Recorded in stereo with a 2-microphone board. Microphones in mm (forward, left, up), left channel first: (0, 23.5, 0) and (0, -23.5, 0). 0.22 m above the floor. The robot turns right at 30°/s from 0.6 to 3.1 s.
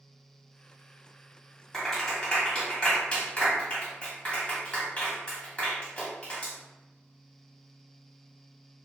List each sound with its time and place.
1.7 s a clap: 10° left (ahead or behind), 1.2 m; by 6.5 s 25° left (ahead or behind), 1.2 m